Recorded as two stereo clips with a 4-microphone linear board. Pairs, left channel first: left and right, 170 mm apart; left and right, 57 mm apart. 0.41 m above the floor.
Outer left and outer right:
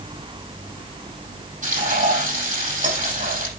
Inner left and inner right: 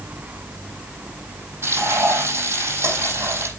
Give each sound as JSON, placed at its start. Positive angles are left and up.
{"t": 1.6, "sound": "frying", "side_deg": -50, "distance_m": 5.5}